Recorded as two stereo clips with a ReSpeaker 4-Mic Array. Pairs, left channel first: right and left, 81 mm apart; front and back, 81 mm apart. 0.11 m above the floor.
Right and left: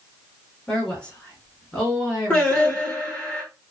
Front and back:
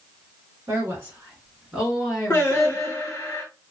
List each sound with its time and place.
0.7 s a woman speaking: 160° right, 1.8 m; by 2.9 s 10° left, 1.5 m
2.3 s singing: 40° right, 1.5 m